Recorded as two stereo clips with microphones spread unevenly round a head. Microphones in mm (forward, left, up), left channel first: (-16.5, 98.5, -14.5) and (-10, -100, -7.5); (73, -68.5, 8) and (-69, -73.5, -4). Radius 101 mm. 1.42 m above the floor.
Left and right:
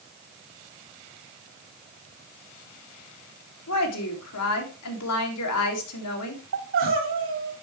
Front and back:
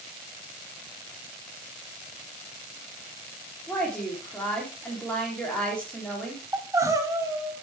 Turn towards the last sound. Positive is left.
turn(degrees=-110)